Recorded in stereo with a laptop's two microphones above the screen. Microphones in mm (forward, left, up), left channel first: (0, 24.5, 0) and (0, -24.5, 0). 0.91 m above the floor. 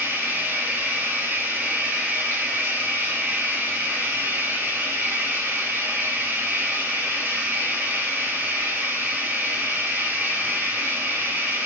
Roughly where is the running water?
Right.